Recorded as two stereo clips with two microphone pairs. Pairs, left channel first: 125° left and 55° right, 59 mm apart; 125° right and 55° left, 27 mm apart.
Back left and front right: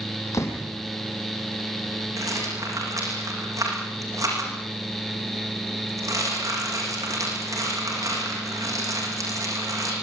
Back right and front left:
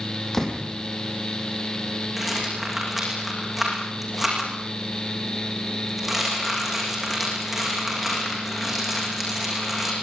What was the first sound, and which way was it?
A door slam, 160° left.